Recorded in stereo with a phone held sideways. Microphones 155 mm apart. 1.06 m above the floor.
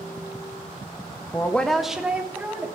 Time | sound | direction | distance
1.3 | a woman speaking | 15° left (ahead or behind) | 1.0 m